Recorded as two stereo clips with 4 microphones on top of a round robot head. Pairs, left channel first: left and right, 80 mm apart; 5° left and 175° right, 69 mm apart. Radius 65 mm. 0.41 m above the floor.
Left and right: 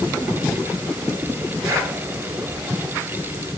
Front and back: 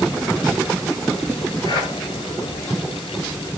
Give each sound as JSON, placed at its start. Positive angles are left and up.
{"t": 1.6, "sound": "breathing", "azimuth_deg": -35, "distance_m": 6.5}